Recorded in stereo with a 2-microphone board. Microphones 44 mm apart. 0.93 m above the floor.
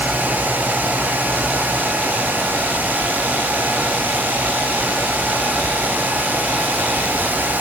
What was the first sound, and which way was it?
Only background noise.